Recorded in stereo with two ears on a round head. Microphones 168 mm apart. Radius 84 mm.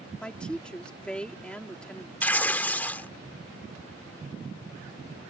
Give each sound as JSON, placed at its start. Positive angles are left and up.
{"t": 0.2, "sound": "a woman speaking", "side_deg": 5}
{"t": 2.2, "sound": "tearing paper", "side_deg": 10}